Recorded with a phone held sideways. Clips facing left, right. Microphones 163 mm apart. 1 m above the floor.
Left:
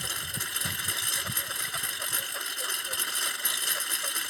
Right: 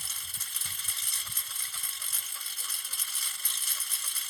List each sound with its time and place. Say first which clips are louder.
0.0 s a lawn mower: left 13 dB; 70° left (ahead or behind)